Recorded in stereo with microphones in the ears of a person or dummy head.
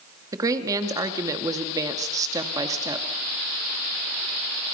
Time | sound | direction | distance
0.3 | a woman speaking | 15° right (ahead or behind) | 2.0 m